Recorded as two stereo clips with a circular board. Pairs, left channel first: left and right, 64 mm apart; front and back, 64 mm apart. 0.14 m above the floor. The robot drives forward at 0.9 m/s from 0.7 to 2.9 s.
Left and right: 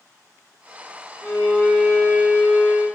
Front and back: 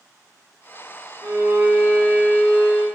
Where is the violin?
145° left, 1.7 m; by 2.9 s 160° left, 3 m.